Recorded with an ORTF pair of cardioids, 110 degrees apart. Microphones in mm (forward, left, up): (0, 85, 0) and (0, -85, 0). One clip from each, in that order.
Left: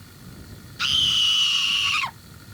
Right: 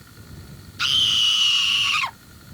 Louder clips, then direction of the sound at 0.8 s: Right 1 dB; 10° right.